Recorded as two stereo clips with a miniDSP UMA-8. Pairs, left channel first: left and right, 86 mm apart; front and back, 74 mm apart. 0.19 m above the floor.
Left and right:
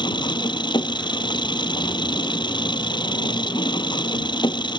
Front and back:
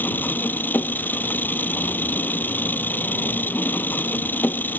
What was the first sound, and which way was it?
An engine running, 65° left.